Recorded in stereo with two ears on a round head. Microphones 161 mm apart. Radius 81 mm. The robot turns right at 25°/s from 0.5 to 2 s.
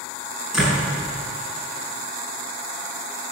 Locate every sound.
0.5 s a door slam: 5° right (ahead or behind), 7 m; by 0.9 s 5° left (ahead or behind), 7 m